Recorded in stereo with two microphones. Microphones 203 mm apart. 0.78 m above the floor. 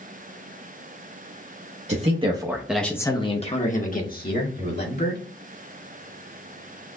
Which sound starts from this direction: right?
A man speaking, at 1.9 s.